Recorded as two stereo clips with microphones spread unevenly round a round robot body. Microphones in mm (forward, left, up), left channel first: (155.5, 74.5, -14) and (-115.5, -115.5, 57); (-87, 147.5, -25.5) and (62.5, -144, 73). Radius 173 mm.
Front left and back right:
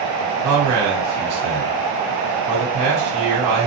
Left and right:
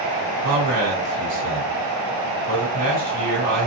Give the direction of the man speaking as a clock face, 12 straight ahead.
4 o'clock.